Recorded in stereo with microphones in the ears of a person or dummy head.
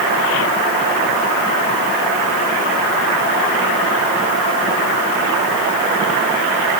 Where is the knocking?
No knocking in this recording.